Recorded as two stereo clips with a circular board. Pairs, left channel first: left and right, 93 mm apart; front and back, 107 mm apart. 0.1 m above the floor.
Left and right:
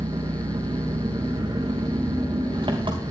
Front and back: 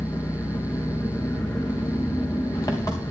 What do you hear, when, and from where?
0.0 s an engine running: 60° right, 3 m